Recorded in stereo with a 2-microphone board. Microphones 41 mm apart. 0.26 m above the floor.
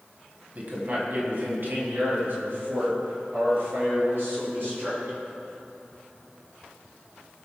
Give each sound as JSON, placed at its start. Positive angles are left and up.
{"t": 0.6, "sound": "a man speaking", "side_deg": -45, "distance_m": 1.8}